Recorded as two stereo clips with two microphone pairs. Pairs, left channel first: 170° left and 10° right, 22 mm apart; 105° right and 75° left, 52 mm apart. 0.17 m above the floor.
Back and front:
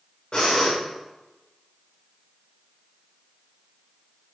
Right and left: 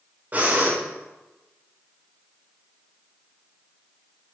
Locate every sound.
0.3 s breathing: 125° left, 5.5 m